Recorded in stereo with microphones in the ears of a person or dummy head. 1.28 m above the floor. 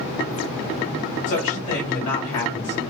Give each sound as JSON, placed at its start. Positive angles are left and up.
{"t": 1.3, "sound": "a woman speaking", "side_deg": 45, "distance_m": 2.0}